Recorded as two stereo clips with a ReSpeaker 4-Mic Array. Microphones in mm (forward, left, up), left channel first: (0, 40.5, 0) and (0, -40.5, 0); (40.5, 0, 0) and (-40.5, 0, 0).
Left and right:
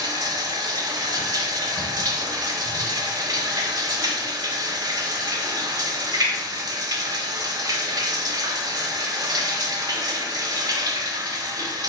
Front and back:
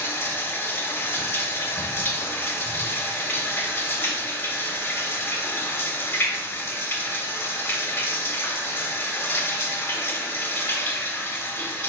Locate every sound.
0.0 s running water: 60° right, 0.7 m